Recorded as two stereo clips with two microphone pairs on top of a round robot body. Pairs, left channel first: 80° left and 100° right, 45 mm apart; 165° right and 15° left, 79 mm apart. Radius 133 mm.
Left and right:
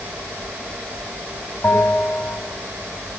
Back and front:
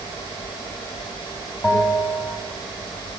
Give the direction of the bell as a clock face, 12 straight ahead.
7 o'clock.